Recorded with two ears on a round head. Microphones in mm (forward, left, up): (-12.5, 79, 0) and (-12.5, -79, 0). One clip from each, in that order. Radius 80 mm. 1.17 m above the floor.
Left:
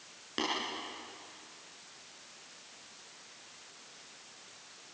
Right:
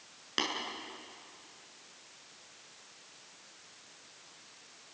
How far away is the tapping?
About 7.5 m.